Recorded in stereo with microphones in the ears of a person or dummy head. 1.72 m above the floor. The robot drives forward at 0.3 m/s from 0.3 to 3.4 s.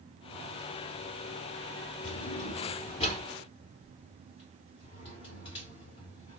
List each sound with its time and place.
2.0 s a drawer: 30° left (ahead or behind), 1.9 m